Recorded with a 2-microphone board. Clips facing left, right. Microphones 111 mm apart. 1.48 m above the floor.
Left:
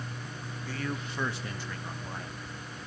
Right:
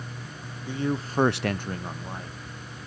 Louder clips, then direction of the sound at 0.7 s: Right 8 dB; 15° right (ahead or behind).